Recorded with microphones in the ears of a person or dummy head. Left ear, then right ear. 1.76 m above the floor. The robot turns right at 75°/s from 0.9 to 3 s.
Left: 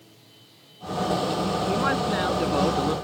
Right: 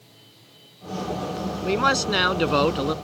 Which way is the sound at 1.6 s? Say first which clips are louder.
Right 6 dB; 115° right.